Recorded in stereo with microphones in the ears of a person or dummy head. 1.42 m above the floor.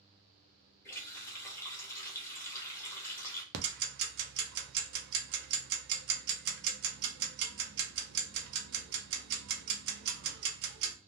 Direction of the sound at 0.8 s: 15° left (ahead or behind).